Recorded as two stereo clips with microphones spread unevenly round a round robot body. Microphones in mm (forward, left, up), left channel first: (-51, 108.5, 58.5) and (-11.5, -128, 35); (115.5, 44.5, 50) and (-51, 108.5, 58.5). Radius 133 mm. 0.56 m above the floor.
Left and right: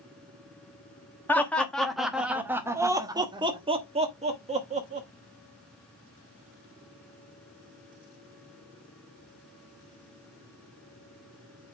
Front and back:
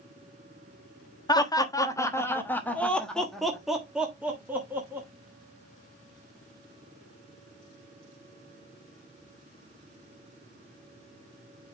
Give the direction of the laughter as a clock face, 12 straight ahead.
12 o'clock.